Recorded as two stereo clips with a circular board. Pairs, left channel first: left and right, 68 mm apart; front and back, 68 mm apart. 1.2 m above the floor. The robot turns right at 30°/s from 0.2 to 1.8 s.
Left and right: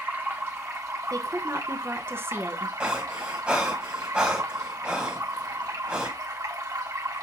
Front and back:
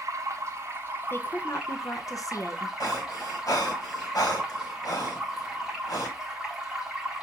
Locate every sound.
0.0 s running water: 145° right, 1.5 m; by 7.2 s 100° right, 1.5 m
1.1 s a woman speaking: 55° right, 0.7 m; by 2.7 s 35° right, 0.7 m
2.8 s breathing: 15° right, 1.4 m